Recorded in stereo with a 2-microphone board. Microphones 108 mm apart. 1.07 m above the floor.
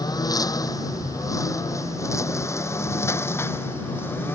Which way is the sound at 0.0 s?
35° left (ahead or behind).